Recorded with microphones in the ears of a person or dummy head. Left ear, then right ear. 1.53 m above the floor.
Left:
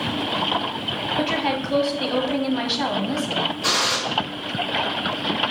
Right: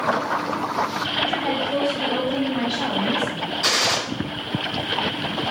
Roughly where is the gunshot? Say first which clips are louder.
Right 2 dB; right.